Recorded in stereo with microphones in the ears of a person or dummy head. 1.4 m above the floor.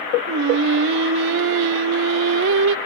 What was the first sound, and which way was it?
Singing, 65° right (ahead or behind).